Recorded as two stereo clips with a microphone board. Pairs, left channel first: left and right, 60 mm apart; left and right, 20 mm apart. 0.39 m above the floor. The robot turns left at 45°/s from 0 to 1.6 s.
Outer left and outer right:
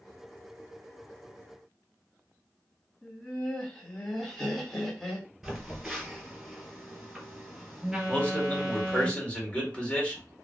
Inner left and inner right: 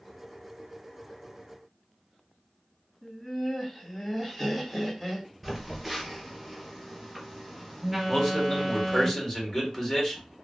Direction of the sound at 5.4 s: 5° right (ahead or behind).